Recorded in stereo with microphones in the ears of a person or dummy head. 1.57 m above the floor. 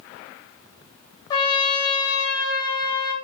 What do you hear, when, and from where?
1.3 s a trumpet: 25° left (ahead or behind), 0.6 m